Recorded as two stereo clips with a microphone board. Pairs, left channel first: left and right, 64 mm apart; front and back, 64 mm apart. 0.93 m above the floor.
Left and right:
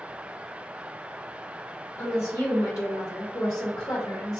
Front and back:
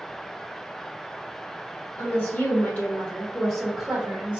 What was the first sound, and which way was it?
A woman speaking, 45° left.